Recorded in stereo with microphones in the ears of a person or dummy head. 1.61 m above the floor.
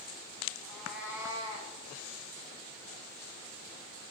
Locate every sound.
0.6 s a cat meowing: 10° left (ahead or behind), 2.0 m; by 1.7 s 40° right (ahead or behind), 1.8 m